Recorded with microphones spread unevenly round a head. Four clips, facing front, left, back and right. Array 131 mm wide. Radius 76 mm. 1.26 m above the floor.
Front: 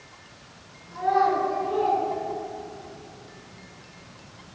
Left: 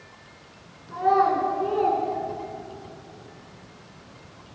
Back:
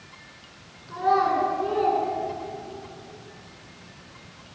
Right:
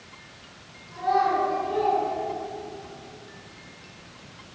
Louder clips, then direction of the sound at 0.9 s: Left 3 dB, even; 120° left.